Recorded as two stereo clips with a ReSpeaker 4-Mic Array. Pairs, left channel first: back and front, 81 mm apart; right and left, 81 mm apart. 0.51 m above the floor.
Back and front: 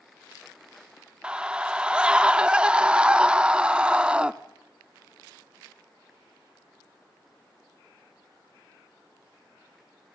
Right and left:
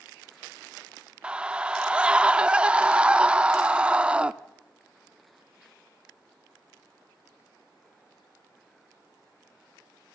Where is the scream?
50° left, 0.6 m.